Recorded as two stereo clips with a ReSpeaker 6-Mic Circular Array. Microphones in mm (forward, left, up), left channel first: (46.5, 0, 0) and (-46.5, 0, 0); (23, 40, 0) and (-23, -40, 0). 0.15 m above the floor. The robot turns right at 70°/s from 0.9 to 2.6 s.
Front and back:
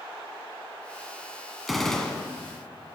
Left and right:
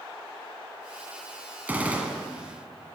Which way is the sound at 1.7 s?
95° right.